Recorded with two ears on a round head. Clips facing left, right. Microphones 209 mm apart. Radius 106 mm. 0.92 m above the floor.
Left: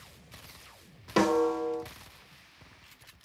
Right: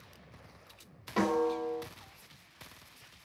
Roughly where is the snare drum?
Left.